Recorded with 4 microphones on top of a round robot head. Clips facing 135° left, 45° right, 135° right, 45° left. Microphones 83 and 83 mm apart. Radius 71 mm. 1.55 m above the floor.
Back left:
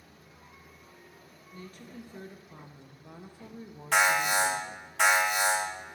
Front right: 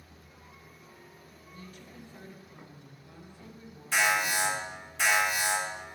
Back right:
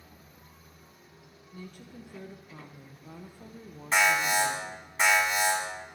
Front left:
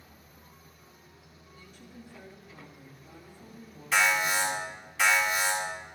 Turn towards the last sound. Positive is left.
turn(degrees=165)